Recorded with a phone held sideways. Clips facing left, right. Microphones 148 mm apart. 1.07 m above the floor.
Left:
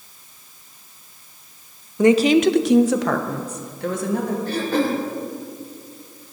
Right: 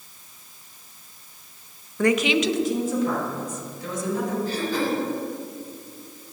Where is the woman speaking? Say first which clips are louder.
Left 7 dB; 15° left (ahead or behind), 0.5 m; by 4.4 s 60° left (ahead or behind), 1.5 m.